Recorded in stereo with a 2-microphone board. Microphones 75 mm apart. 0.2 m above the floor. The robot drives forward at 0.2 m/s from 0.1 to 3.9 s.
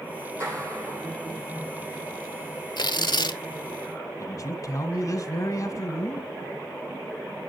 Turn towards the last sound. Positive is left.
turn(degrees=45)  # may be behind; listen again after turning